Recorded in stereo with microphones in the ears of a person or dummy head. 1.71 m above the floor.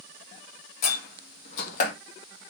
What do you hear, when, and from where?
0.8 s a door slam: 50° left (ahead or behind), 2 m